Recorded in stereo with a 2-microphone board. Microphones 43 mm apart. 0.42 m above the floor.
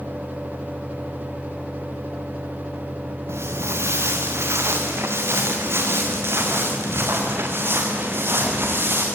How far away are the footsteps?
About 2.5 m.